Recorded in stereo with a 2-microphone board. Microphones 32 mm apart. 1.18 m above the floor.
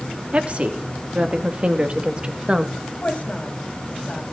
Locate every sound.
0.3 s a woman speaking: 40° right (ahead or behind), 3 m; by 2.7 s 30° right (ahead or behind), 1.8 m
2.8 s a woman speaking: 40° left (ahead or behind), 6 m